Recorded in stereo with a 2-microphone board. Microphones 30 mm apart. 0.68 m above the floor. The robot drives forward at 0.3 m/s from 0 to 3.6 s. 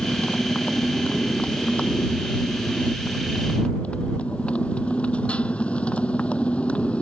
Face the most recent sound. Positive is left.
turn(degrees=45)  # may be behind; listen again after turning